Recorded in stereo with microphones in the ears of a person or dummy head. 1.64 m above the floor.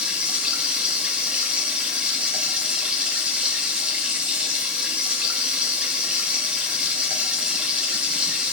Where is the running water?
5° right (ahead or behind), 0.7 m.